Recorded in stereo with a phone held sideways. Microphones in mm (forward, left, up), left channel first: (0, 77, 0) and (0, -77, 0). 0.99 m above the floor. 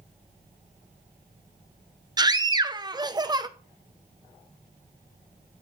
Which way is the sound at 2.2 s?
25° right (ahead or behind).